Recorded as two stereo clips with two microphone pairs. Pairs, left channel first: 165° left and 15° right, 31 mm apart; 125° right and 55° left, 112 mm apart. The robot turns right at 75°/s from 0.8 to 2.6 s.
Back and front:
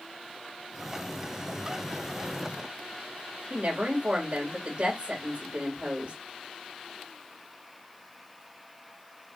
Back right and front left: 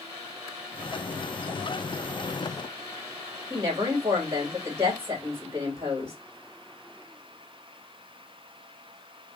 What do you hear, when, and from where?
3.5 s a woman speaking: 10° right, 2 m